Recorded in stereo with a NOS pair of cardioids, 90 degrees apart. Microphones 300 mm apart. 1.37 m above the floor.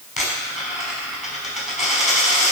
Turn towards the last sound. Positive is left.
turn(degrees=25)